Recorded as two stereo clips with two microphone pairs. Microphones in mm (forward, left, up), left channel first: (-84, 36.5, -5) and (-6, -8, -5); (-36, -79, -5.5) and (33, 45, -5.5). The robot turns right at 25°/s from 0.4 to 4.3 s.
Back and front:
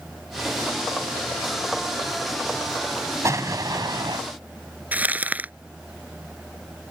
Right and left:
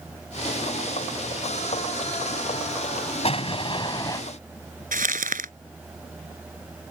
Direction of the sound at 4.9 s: 45° left.